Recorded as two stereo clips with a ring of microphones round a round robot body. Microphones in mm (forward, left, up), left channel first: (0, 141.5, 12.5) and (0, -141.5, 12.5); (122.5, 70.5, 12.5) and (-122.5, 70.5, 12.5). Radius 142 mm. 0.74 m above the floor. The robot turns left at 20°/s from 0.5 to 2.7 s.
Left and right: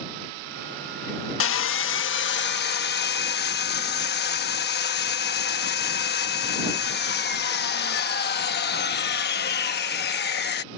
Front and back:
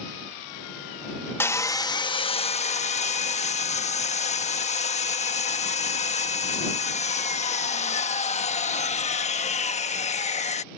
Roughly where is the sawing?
Left.